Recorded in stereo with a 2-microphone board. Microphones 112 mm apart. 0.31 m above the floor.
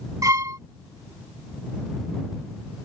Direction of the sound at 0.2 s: 30° right (ahead or behind).